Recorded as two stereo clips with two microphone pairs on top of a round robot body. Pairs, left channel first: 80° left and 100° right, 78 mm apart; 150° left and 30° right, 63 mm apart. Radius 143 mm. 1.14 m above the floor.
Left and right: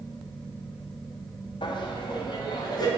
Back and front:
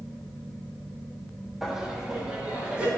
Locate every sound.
1.6 s laughter: 65° left, 0.7 m; by 2.9 s 45° left, 1.3 m